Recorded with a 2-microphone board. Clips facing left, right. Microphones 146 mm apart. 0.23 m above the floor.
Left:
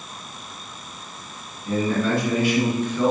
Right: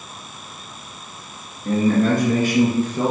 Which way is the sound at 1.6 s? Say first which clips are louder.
Right 5 dB; 55° right (ahead or behind).